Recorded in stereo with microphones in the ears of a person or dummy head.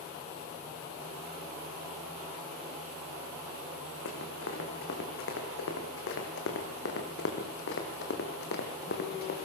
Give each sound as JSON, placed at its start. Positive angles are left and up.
{"t": 4.0, "sound": "running footsteps", "side_deg": 75, "distance_m": 5.5}